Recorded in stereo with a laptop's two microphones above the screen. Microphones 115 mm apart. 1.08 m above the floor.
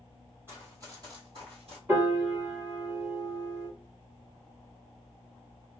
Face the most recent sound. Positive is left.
turn(degrees=-20)  # may be behind; listen again after turning